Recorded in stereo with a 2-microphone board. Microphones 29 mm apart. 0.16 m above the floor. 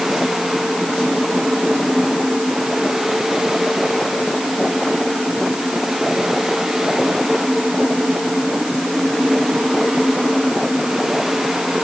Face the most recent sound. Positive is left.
No sound to turn to.